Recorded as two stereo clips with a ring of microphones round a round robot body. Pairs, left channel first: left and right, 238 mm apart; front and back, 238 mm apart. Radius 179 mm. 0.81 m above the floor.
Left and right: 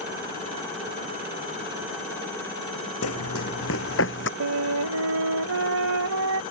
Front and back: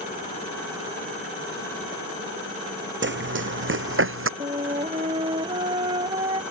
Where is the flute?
105° right.